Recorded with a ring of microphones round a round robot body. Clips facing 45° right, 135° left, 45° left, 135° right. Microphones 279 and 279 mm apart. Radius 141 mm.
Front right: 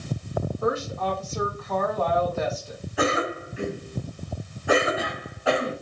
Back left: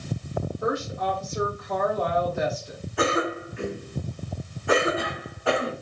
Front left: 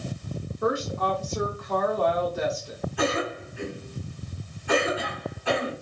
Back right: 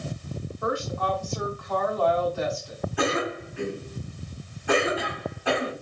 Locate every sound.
0.6 s a woman speaking: 80° left, 1.0 m
3.0 s a cough: 135° right, 1.8 m